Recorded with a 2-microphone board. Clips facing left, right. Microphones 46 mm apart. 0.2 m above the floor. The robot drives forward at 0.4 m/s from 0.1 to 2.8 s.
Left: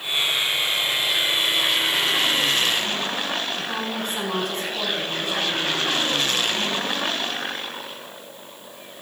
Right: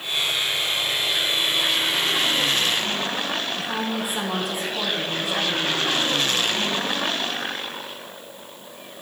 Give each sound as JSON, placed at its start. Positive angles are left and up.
{"t": 3.6, "sound": "a woman speaking", "side_deg": -5, "distance_m": 1.4}